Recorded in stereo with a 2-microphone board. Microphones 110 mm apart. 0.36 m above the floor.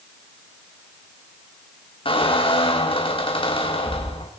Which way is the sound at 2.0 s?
55° left (ahead or behind).